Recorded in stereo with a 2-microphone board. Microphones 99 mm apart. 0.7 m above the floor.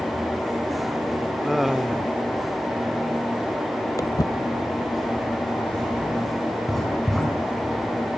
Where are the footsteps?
35° left (ahead or behind), 1.2 m; by 6.6 s 70° left (ahead or behind), 1.9 m.